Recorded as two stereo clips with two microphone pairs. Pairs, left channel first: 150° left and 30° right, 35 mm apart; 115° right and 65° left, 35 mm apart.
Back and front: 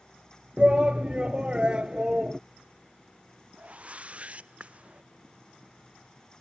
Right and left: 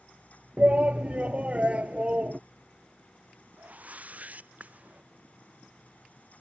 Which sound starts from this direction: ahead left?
A shout, at 0.6 s.